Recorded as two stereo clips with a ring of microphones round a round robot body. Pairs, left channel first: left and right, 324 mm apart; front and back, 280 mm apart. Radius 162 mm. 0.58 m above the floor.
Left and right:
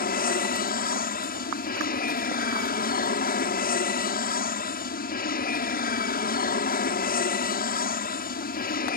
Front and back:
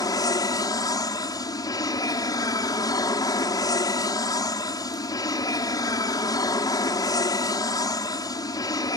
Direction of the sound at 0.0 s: 65° left.